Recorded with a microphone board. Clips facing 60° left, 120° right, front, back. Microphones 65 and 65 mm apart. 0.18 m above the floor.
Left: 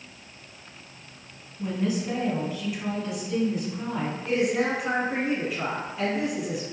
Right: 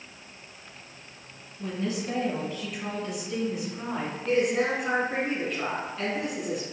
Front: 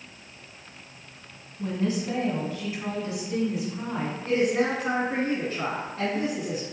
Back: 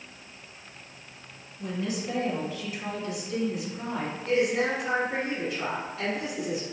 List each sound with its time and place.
1.6 s a woman speaking: 15° left, 1.9 m; by 4.2 s 70° right, 1.7 m
4.2 s a woman speaking: 20° right, 1.8 m